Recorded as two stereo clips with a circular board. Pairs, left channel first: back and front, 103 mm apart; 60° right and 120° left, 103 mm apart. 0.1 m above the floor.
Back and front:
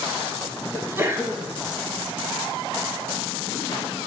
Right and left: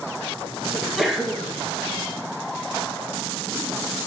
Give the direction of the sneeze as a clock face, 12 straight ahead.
11 o'clock.